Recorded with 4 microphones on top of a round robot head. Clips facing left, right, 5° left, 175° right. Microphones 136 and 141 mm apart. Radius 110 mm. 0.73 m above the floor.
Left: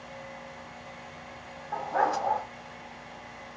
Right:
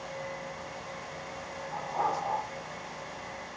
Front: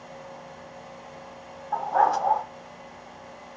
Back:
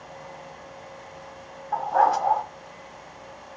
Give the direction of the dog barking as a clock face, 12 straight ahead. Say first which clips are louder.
Left 4 dB, back 1 dB; 9 o'clock.